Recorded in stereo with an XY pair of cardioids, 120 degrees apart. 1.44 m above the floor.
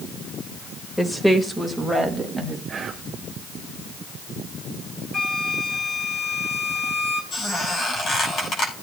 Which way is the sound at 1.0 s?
10° left.